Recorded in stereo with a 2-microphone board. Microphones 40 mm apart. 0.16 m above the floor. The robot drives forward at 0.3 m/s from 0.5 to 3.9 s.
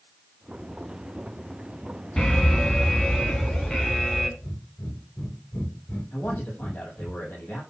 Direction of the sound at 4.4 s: 70° left (ahead or behind).